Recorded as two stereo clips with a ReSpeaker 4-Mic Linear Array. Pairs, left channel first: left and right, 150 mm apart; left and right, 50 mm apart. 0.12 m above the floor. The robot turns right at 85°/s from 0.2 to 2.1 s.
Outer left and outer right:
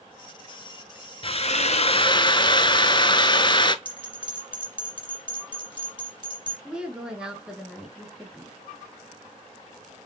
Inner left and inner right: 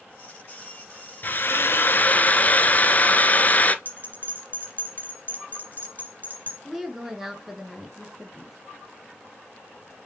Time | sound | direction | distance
1.2 | a drill | 60° left | 0.6 m
3.9 | a bell | 35° left (ahead or behind) | 2.5 m
6.7 | a woman speaking | 5° right (ahead or behind) | 1.5 m